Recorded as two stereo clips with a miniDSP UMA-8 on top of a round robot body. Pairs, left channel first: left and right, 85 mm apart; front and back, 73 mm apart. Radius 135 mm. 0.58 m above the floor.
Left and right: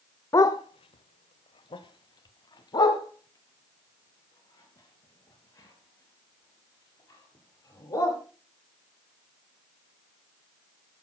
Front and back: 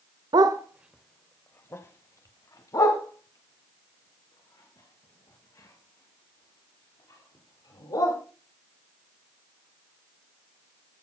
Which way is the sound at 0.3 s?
150° left.